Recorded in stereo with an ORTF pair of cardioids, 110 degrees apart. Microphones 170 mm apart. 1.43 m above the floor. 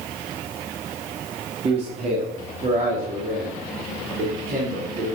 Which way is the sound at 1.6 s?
35° right.